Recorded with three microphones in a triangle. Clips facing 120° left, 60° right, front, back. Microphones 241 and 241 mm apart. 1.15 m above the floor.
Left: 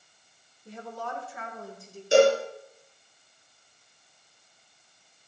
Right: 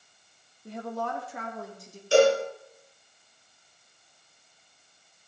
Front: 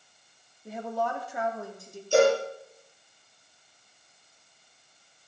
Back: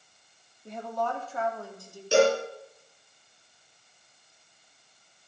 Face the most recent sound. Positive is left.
turn(degrees=-165)